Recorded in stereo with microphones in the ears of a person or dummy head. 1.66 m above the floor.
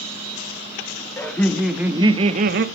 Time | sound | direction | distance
1.2 | laughter | 15° left (ahead or behind) | 1.8 m